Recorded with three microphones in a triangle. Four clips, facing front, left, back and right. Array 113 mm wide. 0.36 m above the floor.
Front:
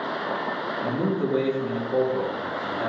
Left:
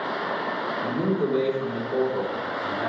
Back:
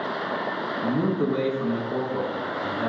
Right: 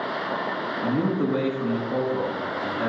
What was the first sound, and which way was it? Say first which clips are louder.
A man speaking: right 2 dB, back 2 dB; 140° right.